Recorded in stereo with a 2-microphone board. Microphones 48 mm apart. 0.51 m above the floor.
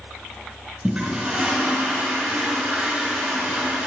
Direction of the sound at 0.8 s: 20° right (ahead or behind).